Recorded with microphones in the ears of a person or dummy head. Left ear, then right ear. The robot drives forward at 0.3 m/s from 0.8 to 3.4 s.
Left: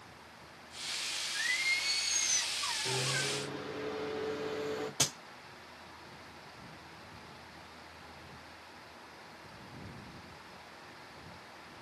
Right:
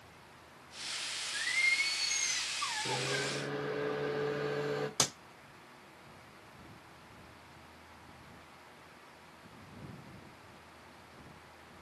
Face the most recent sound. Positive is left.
turn(degrees=-40)  # may be behind; listen again after turning